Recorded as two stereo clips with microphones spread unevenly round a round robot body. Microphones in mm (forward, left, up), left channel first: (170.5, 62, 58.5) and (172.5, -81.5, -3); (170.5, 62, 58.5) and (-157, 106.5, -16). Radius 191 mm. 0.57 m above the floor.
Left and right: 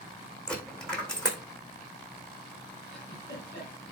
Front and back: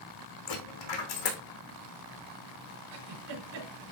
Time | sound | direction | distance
0.5 | a dropped coin | 10° left | 3 m
2.9 | a giggle | 170° right | 4.5 m